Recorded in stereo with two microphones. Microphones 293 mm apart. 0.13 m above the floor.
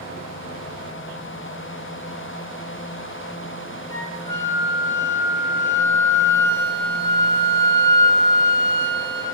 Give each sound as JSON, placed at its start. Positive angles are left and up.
{"t": 3.9, "sound": "a flute", "side_deg": 10, "distance_m": 1.2}